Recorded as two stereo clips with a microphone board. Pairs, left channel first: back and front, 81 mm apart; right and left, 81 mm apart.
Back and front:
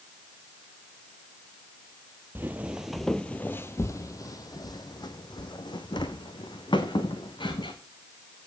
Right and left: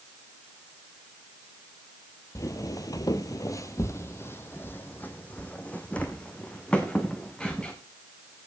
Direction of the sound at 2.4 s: 55° right.